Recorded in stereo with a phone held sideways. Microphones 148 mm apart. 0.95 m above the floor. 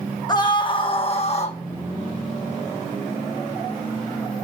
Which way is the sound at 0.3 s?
30° left (ahead or behind).